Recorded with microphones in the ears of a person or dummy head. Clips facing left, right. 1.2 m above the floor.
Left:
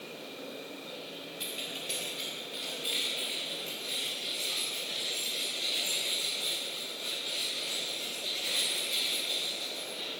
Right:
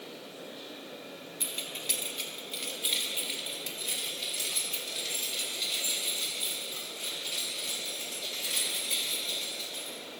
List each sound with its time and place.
1.4 s keys jangling: 25° right (ahead or behind), 1.5 m; by 10.0 s 80° right, 5.5 m